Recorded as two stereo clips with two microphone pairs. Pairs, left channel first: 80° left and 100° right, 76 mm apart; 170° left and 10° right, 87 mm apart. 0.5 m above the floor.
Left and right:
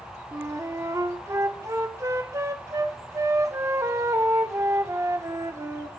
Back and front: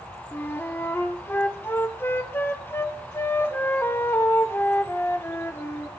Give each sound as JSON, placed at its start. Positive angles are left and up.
{"t": 0.3, "sound": "a flute", "azimuth_deg": -130, "distance_m": 0.6}